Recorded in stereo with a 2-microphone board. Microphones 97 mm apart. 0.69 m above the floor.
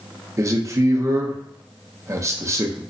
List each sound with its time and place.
0.4 s a man speaking: 30° right (ahead or behind), 0.6 m